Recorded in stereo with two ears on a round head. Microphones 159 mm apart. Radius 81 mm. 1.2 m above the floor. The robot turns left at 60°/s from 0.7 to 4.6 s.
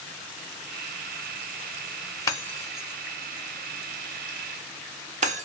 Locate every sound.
2.3 s breaking glass: 20° left (ahead or behind), 0.9 m; by 5.5 s 40° right (ahead or behind), 0.9 m